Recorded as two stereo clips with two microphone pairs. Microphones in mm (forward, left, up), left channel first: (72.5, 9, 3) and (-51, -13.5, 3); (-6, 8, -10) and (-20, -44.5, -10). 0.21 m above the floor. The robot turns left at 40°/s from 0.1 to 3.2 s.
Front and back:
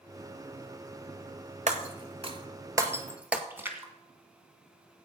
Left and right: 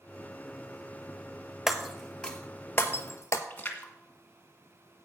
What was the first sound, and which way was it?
Breaking glass, 170° left.